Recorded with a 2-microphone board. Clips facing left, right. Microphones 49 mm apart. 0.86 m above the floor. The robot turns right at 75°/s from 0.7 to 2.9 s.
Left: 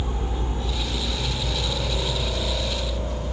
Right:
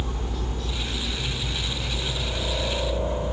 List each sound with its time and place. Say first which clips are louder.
0.0 s a helicopter: left 2 dB; 20° left (ahead or behind); by 3.3 s 25° right (ahead or behind)